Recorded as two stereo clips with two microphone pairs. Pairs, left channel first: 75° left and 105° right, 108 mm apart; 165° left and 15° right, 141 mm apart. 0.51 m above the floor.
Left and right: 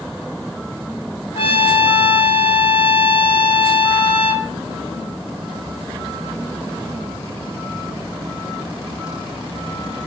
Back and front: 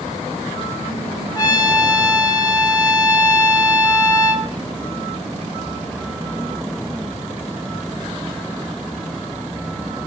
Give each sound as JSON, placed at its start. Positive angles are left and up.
{"t": 1.4, "sound": "a trumpet", "azimuth_deg": 100, "distance_m": 0.6}